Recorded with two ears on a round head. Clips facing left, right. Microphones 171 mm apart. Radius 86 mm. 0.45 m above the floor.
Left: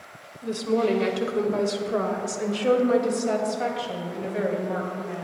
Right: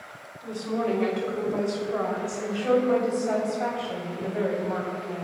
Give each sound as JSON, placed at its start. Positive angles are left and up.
{"t": 0.4, "sound": "a woman speaking", "side_deg": 55, "distance_m": 1.9}